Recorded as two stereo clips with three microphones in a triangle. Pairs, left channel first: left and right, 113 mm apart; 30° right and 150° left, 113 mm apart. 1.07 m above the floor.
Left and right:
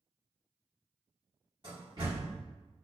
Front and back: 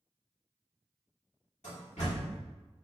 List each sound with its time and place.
1.6 s a door slam: 40° right, 1.9 m